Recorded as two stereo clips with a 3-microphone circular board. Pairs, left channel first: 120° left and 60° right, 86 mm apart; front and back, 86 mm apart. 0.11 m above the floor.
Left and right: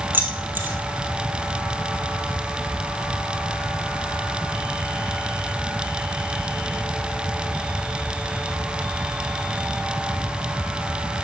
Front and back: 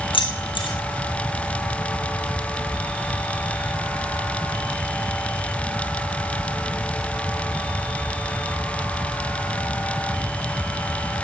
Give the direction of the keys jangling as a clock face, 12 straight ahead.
12 o'clock.